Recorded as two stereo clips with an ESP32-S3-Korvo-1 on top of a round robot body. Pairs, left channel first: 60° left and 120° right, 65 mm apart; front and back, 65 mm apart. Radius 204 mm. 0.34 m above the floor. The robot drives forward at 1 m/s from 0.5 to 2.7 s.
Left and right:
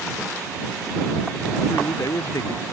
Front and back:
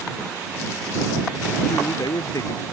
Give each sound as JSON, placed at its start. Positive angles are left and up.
{"t": 1.7, "sound": "a man speaking", "azimuth_deg": 20}